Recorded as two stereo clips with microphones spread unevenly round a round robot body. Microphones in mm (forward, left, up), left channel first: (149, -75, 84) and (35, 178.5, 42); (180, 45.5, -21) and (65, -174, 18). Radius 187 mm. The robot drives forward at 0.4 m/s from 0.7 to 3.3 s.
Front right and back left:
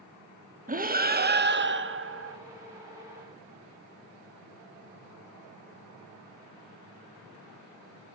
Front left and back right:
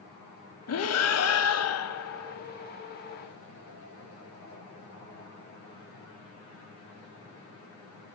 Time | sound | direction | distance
0.7 | breathing | 55° left | 1.7 m